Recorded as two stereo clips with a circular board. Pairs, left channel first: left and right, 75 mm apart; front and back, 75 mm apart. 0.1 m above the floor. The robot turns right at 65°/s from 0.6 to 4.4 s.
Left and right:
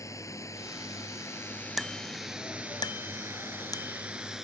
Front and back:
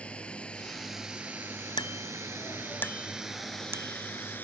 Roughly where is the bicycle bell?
Ahead.